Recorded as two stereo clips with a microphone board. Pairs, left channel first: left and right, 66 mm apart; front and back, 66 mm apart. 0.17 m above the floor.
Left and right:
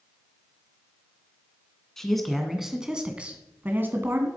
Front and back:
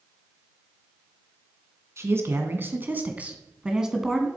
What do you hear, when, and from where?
2.0 s a man speaking: 175° left, 2 m; by 4.3 s 90° right, 2.0 m